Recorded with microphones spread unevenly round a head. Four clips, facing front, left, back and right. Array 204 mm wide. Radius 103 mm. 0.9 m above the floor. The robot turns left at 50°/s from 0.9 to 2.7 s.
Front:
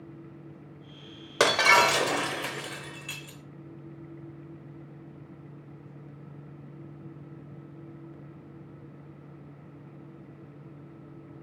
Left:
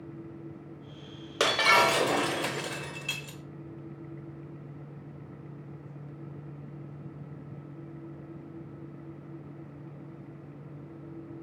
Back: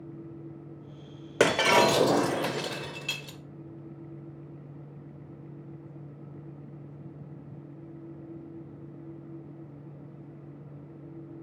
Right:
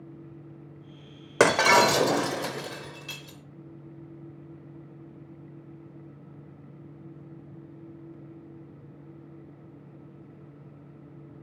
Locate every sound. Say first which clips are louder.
1.4 s breaking glass: right 5 dB, even; 120° right, 0.7 m; by 3.4 s 175° left, 0.7 m